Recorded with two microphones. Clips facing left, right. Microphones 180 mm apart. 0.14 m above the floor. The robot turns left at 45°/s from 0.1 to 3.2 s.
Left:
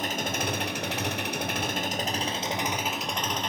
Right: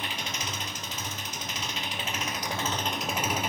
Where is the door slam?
I don't hear a door slam.